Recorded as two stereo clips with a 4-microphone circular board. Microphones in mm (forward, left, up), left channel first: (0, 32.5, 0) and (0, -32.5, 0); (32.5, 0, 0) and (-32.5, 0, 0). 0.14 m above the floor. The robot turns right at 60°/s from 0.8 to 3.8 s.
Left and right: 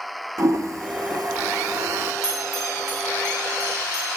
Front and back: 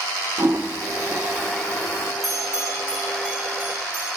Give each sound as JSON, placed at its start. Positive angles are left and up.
{"t": 0.4, "sound": "a toilet flushing", "azimuth_deg": -125, "distance_m": 0.7}
{"t": 2.2, "sound": "a bell", "azimuth_deg": 40, "distance_m": 4.0}